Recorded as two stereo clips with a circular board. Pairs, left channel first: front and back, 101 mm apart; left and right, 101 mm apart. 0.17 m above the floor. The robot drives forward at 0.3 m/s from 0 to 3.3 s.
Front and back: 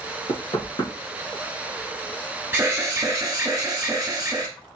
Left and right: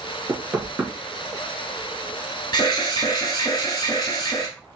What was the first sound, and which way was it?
Knocking, 25° right.